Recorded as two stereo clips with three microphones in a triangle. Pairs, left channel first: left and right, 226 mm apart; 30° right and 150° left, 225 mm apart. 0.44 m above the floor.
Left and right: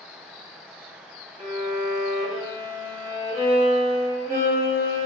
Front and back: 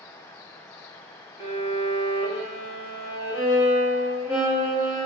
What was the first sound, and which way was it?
A violin, 135° right.